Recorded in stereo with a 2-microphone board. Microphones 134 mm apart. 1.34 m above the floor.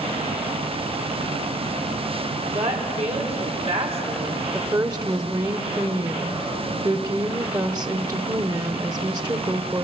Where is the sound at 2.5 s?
55° right (ahead or behind), 5 m.